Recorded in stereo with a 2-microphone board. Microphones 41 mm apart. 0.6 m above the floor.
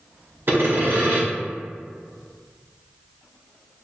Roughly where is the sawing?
Right.